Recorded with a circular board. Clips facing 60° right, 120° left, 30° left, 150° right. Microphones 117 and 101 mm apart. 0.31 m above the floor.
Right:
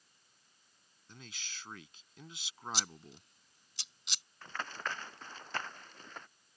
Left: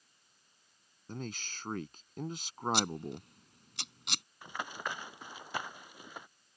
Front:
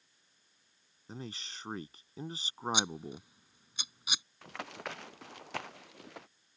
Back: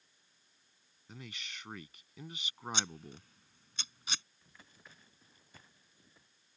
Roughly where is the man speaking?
Left.